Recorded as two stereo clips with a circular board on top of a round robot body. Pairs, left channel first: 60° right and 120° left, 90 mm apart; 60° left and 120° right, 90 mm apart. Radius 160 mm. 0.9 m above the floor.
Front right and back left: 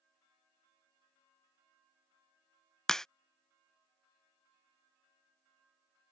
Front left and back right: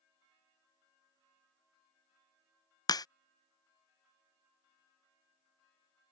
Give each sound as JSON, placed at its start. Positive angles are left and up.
{"t": 2.9, "sound": "a crack", "azimuth_deg": 25}